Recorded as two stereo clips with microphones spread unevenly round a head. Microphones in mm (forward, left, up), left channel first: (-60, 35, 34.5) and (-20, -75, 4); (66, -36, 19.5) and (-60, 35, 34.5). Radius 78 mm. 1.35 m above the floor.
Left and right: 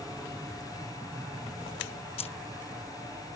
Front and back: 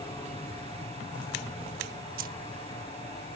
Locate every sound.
0.0 s an aircraft: 15° right; by 3.4 s 20° right
2.2 s keys jangling: 130° left